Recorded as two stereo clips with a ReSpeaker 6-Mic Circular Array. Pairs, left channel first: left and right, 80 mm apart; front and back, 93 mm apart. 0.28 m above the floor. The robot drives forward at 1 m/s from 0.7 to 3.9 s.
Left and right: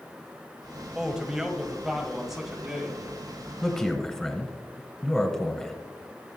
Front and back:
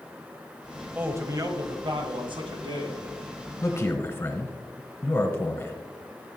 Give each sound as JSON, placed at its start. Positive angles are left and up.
{"t": 0.9, "sound": "a man speaking", "azimuth_deg": -150, "distance_m": 0.9}
{"t": 3.6, "sound": "a man speaking", "azimuth_deg": 10, "distance_m": 1.4}